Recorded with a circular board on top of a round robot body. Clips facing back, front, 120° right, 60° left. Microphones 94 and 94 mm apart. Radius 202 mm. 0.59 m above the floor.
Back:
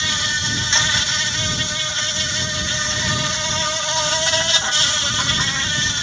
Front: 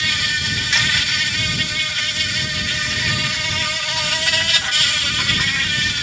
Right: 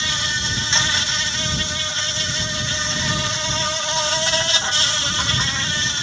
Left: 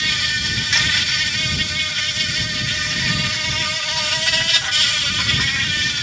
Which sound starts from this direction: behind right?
An insect, at 0.0 s.